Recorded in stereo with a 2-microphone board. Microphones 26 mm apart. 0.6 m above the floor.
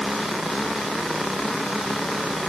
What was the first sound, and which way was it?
Only background noise.